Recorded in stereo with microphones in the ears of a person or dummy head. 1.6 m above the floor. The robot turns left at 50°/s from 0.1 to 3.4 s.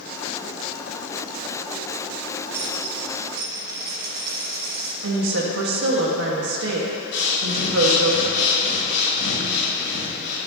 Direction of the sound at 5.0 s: 75° right (ahead or behind).